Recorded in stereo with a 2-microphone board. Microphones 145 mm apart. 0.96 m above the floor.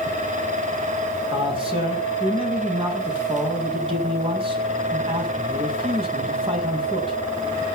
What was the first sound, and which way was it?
A man speaking, 35° right (ahead or behind).